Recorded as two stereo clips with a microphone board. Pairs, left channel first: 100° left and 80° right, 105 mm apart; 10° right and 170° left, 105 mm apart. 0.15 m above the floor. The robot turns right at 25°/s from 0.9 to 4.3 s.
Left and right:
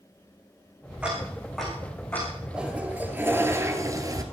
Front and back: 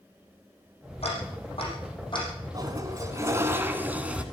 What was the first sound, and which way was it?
Ticking, straight ahead.